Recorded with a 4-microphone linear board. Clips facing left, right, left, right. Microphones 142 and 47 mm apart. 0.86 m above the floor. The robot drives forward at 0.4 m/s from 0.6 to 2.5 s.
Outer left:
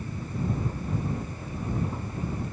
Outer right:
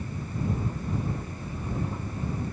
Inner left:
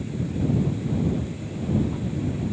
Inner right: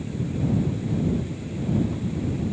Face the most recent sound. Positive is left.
No sound to turn to.